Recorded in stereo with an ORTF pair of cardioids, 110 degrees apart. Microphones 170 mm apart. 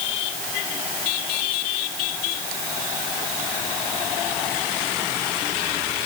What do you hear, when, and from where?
Only background noise.